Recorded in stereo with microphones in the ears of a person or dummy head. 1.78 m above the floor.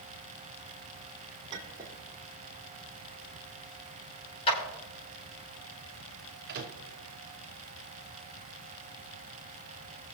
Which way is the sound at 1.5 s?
30° right (ahead or behind).